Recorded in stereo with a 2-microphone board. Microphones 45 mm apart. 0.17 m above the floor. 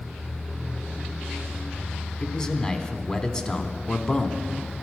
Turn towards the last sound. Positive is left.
turn(degrees=20)  # may be behind; listen again after turning